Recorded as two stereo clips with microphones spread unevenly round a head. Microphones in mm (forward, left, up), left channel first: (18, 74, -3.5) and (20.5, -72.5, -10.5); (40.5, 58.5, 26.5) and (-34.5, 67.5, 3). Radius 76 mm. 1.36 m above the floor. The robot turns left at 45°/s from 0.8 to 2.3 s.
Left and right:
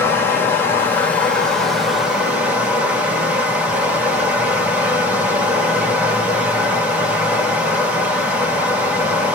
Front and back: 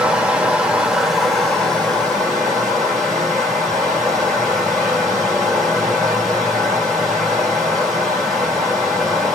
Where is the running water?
50° left, 1.1 m; by 9.3 s 15° right, 1.1 m.